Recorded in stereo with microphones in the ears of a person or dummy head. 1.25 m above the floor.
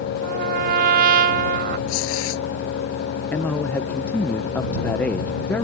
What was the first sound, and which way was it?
A trumpet, 50° right (ahead or behind).